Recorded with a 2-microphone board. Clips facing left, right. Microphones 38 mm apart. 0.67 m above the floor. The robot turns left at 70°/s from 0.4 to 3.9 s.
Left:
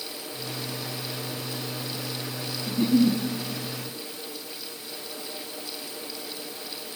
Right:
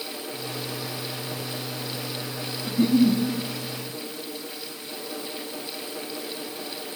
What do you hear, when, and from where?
2.7 s a giggle: 160° right, 1.2 m; by 3.2 s 165° left, 1.2 m